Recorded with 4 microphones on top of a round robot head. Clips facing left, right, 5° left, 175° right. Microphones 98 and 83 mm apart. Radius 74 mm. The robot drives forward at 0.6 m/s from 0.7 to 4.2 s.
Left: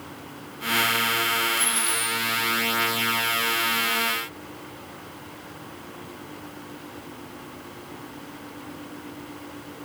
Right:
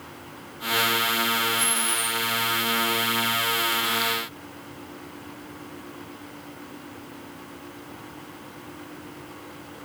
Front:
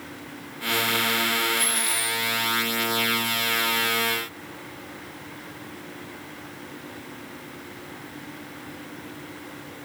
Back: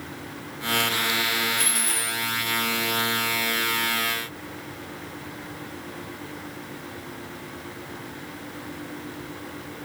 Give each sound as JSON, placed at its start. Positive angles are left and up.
{"t": 1.6, "sound": "a dropped coin", "azimuth_deg": 170, "distance_m": 2.5}